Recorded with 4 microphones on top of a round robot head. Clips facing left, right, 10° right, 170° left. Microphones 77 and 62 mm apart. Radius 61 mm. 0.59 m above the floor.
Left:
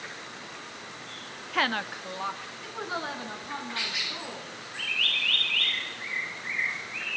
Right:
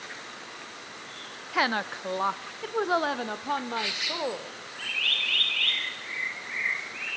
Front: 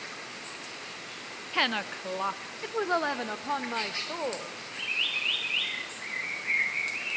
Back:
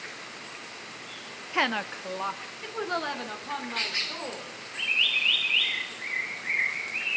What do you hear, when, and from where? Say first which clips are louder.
1.5 s a woman speaking: right 2 dB, back 2 dB; 150° right, 0.7 m; by 4.6 s 70° right, 2 m